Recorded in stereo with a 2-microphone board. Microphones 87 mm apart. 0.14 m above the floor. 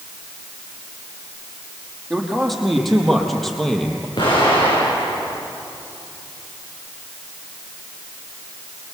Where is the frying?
No frying in this recording.